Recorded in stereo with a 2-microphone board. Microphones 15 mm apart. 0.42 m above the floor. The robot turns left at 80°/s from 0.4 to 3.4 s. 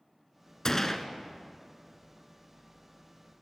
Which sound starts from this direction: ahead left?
A gunshot, at 0.7 s.